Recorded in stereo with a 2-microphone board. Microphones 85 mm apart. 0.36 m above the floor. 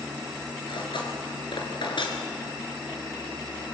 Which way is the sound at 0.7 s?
75° left (ahead or behind).